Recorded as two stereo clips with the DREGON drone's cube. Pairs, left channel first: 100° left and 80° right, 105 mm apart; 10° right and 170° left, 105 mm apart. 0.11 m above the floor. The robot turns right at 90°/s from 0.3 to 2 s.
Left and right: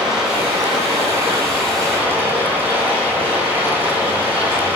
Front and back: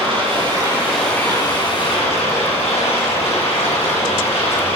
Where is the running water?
165° right, 2.5 m; by 4.8 s 10° right, 2.5 m.